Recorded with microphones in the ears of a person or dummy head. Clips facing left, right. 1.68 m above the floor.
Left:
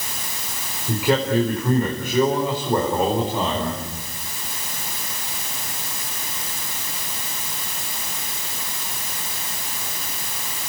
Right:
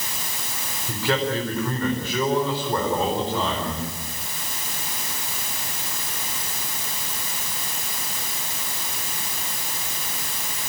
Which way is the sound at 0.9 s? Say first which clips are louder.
Left 4 dB; 15° left (ahead or behind).